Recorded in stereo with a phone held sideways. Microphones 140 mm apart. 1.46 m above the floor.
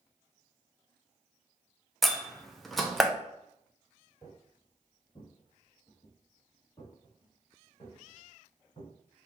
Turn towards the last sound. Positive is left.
turn(degrees=35)  # may be behind; listen again after turning